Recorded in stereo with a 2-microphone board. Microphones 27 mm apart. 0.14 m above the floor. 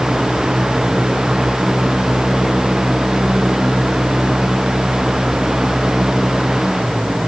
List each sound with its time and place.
Only background noise.